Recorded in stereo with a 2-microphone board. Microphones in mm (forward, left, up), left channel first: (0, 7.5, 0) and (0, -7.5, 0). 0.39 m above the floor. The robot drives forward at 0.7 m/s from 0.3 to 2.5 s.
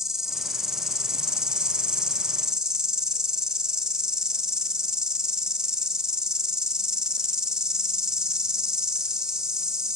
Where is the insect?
30° right (ahead or behind), 1.4 m; by 10.0 s 50° right (ahead or behind), 0.9 m.